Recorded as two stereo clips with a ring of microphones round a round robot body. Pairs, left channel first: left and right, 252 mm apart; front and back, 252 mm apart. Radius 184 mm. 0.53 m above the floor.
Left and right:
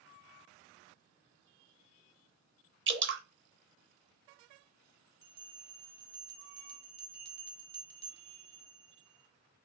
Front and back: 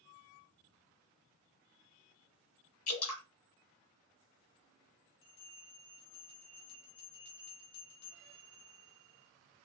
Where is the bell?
45° right, 1.0 m.